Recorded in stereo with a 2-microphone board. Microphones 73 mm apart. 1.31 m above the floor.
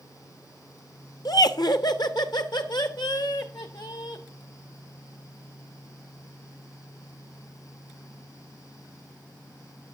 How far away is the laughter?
About 0.8 m.